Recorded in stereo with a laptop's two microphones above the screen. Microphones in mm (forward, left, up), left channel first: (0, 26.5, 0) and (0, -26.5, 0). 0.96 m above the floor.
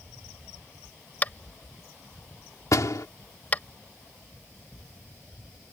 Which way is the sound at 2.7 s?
80° left.